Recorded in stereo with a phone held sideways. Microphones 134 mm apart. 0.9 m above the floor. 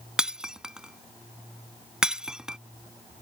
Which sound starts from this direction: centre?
Breaking glass, at 0.2 s.